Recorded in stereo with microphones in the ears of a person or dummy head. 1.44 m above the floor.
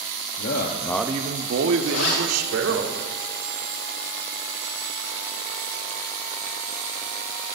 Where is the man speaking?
55° left (ahead or behind), 1.0 m; by 2.8 s 80° right, 2.5 m.